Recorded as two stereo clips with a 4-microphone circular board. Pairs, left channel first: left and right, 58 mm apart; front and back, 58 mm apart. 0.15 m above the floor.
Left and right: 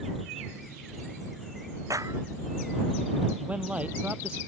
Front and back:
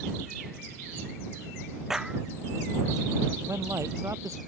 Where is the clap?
95° right.